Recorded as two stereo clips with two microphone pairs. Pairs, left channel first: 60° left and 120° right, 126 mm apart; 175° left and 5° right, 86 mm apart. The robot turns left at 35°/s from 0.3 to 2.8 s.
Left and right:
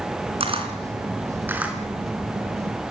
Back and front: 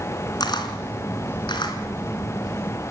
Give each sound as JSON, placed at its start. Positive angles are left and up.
{"t": 0.4, "sound": "a camera shutter", "azimuth_deg": -155, "distance_m": 3.0}